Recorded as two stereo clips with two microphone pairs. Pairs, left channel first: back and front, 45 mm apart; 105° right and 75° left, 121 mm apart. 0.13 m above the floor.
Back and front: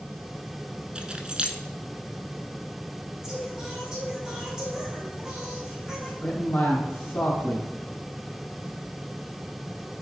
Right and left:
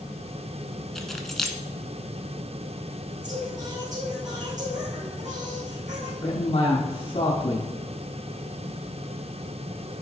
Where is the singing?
75° left, 4.5 m.